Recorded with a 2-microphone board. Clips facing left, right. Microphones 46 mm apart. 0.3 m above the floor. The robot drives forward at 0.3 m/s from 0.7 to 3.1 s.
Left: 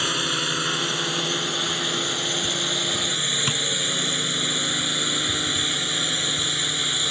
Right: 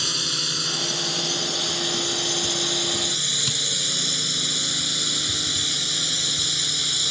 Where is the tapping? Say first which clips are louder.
Left 3 dB; 40° left (ahead or behind).